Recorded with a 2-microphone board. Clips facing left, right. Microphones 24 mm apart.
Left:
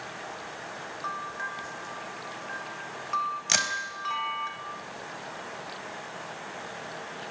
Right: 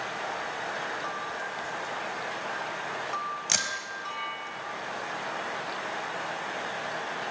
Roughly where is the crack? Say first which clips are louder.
Left 2 dB; centre.